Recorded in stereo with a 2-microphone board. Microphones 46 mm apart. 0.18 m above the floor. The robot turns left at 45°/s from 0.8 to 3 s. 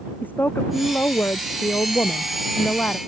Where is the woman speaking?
140° left; by 3.0 s 40° left.